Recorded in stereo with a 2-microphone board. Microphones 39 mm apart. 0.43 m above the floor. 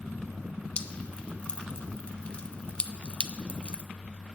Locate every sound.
0.8 s dripping: 30° left (ahead or behind), 0.5 m